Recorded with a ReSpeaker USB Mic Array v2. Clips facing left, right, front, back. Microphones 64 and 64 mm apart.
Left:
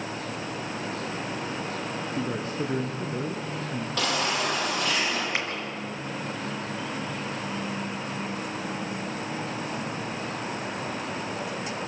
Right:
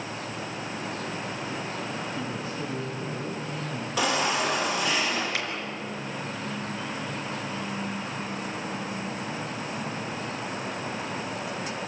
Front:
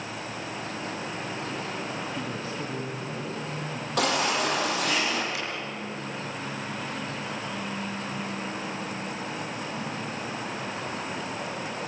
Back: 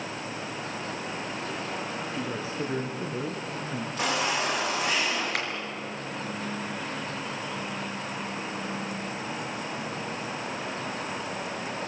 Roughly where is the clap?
Behind left.